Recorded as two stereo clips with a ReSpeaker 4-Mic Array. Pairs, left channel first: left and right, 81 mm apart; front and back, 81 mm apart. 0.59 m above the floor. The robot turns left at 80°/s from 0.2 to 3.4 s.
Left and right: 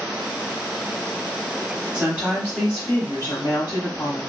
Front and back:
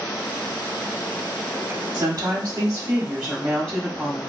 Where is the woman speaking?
150° right, 1.0 m; by 4.2 s 90° left, 1.0 m.